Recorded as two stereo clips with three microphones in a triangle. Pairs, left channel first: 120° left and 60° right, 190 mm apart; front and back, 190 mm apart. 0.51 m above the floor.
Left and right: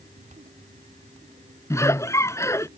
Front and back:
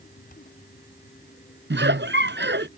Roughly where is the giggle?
Behind.